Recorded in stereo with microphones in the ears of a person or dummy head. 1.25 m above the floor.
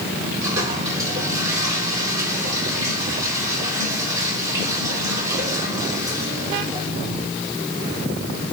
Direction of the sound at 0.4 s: 20° right (ahead or behind).